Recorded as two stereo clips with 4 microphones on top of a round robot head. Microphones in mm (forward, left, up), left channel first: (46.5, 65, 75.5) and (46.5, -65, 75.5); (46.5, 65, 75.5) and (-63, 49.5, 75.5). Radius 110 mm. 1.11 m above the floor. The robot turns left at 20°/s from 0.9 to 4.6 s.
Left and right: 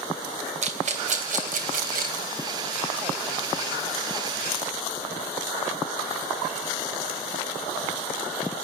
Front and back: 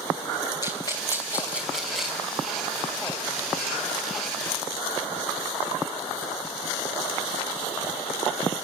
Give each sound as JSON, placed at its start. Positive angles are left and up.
{"t": 0.6, "sound": "a rattle", "azimuth_deg": -60, "distance_m": 2.5}